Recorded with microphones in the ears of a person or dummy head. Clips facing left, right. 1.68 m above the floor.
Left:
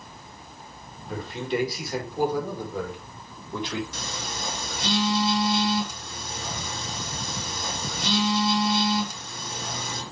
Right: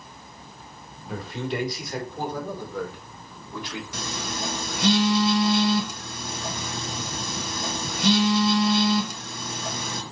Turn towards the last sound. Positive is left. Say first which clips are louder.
# right 3 dB
turn(degrees=-60)  # may be behind; listen again after turning